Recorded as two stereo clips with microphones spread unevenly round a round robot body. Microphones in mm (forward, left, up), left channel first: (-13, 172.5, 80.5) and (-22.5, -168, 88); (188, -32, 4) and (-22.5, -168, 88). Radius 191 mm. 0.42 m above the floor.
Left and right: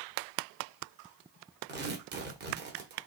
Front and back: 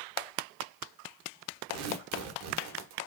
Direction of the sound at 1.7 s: 150° right.